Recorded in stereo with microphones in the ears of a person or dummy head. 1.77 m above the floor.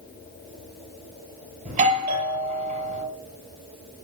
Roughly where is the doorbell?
Right.